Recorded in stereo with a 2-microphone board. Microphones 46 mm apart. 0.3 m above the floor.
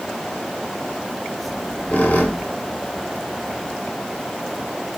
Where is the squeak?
35° left (ahead or behind), 0.6 m.